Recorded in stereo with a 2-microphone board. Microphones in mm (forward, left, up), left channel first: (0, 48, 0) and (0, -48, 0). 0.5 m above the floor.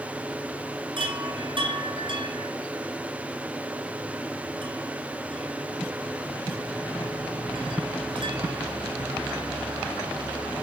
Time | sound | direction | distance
1.0 | a chime | 50° right (ahead or behind) | 2.5 m